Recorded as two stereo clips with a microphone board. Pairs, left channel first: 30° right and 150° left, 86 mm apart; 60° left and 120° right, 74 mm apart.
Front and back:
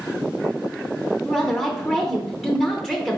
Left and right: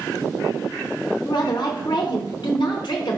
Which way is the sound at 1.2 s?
65° left.